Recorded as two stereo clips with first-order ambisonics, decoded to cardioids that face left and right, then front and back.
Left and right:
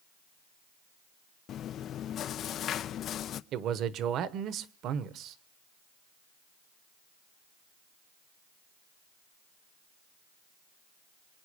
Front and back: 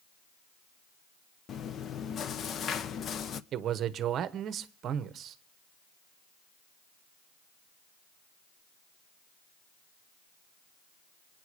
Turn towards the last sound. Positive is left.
turn(degrees=-130)